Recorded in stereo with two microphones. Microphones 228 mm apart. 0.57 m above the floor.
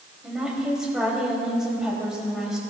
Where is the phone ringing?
No phone ringing in this recording.